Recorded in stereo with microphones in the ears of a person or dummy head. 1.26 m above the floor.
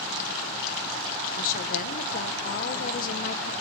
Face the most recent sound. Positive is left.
turn(degrees=55)  # may be behind; listen again after turning